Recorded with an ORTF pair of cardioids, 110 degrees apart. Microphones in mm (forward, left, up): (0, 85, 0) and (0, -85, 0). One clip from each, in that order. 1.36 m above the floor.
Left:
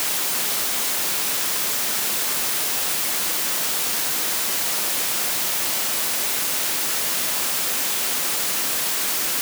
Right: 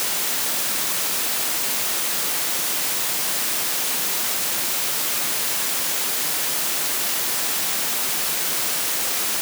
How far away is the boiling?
I don't hear boiling.